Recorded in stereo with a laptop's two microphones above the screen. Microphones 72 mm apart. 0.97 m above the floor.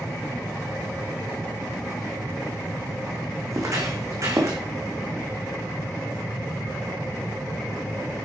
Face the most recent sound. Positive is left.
turn(degrees=-45)  # may be behind; listen again after turning